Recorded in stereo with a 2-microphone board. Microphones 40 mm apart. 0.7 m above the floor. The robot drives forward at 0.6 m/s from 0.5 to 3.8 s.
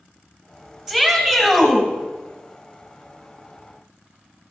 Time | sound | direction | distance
0.9 | a shout | 10° right (ahead or behind) | 3.5 m